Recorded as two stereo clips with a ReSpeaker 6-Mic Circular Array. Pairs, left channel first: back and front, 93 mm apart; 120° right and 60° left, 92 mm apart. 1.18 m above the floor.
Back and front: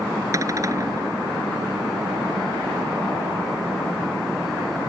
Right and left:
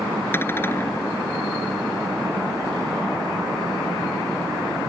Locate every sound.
0.3 s a cupboard door: 55° right